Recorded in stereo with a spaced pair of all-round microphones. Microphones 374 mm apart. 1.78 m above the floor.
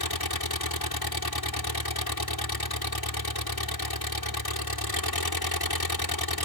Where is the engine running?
75° left (ahead or behind).